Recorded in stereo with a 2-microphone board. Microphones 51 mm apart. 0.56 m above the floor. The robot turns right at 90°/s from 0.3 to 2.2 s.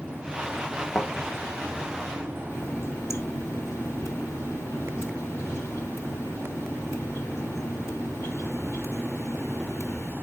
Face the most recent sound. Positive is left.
turn(degrees=65)  # may be behind; listen again after turning